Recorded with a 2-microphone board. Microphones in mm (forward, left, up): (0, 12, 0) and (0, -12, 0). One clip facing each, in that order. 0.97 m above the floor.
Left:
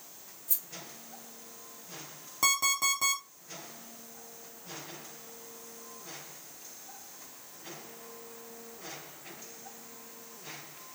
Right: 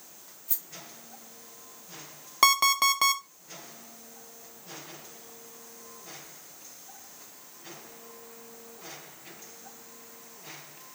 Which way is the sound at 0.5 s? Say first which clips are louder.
Left 1 dB; 25° right (ahead or behind).